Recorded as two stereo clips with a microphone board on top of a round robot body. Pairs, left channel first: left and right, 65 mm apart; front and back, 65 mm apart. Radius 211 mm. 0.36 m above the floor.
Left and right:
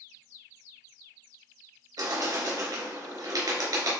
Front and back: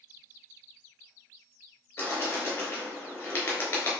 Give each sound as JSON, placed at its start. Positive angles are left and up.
{"t": 2.0, "sound": "a bird", "azimuth_deg": -60, "distance_m": 3.5}